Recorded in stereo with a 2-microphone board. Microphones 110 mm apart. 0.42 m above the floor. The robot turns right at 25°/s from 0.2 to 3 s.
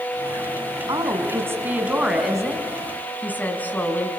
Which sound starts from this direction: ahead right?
A woman speaking, at 0.9 s.